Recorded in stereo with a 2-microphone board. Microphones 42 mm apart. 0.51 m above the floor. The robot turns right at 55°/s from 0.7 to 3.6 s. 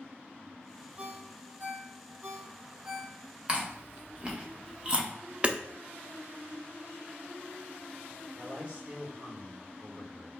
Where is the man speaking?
30° right (ahead or behind), 1.5 m.